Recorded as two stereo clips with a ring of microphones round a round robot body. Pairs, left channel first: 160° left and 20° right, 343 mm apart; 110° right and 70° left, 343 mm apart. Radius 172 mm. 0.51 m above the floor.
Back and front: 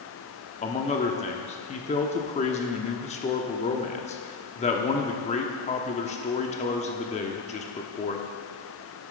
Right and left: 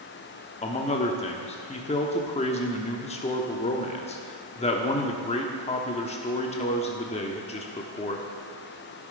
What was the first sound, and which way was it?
A man speaking, 160° right.